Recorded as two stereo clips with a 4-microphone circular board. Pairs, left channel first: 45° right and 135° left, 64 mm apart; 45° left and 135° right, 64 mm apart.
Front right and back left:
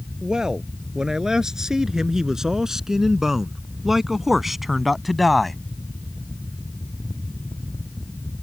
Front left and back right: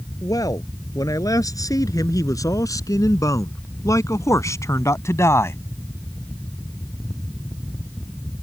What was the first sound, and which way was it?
A man speaking, 55° left.